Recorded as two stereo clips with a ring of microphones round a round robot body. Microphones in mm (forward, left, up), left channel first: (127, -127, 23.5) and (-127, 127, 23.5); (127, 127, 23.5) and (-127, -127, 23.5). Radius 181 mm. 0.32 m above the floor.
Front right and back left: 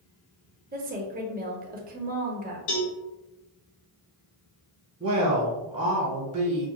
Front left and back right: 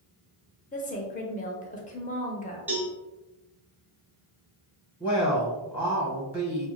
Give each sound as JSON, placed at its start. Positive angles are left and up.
{"t": 0.7, "sound": "a woman speaking", "azimuth_deg": 95, "distance_m": 0.9}
{"t": 2.7, "sound": "a cowbell", "azimuth_deg": -50, "distance_m": 1.5}
{"t": 5.0, "sound": "a woman speaking", "azimuth_deg": 150, "distance_m": 1.2}